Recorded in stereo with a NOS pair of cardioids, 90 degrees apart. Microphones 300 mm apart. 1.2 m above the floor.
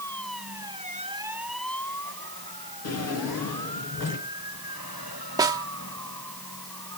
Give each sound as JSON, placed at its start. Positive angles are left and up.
{"t": 2.8, "sound": "a drawer", "azimuth_deg": 55, "distance_m": 6.0}
{"t": 5.4, "sound": "a snare drum", "azimuth_deg": -10, "distance_m": 1.6}